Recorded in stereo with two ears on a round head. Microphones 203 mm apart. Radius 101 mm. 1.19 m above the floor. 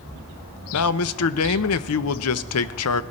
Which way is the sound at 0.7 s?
75° left (ahead or behind).